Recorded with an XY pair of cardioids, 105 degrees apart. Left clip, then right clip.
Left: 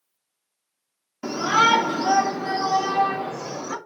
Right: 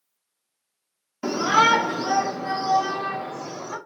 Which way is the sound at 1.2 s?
15° right.